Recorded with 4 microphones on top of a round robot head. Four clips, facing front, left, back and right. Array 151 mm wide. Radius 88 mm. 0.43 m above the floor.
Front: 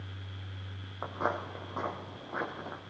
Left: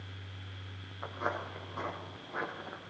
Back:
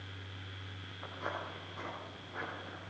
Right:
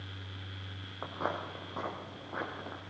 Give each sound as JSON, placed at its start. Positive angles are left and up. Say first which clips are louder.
{"t": 1.0, "sound": "footsteps", "louder": "even, front 8 dB", "azimuth_deg": -30, "distance_m": 4.0}